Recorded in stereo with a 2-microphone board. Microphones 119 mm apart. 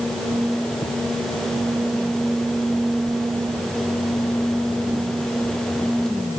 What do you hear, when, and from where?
Only background noise.